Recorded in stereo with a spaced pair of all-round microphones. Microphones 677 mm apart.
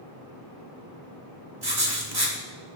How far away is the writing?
About 1.6 m.